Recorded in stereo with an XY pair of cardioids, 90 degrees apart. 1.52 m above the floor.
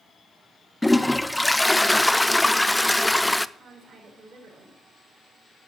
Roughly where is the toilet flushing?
Ahead.